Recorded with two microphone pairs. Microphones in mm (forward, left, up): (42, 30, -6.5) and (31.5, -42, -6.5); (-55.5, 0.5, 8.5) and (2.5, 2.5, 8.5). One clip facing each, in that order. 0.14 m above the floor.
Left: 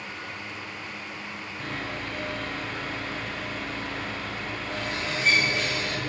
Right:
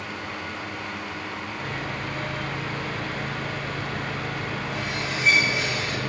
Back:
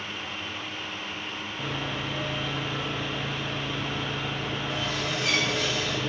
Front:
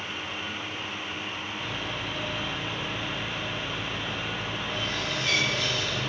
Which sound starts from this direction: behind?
Sawing, at 1.6 s.